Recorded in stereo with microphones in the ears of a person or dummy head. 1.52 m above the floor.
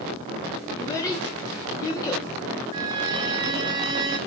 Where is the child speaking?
20° left (ahead or behind), 0.5 m.